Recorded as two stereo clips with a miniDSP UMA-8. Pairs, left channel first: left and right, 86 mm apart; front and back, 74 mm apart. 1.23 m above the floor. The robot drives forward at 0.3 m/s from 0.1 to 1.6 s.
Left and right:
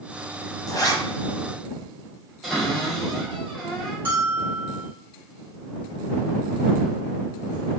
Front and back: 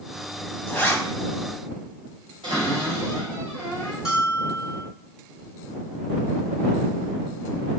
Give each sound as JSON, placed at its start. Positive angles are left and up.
{"t": 0.7, "sound": "a zipper", "azimuth_deg": 55, "distance_m": 0.7}
{"t": 2.4, "sound": "a cupboard door", "azimuth_deg": 180, "distance_m": 1.8}
{"t": 4.0, "sound": "a bell", "azimuth_deg": -110, "distance_m": 1.0}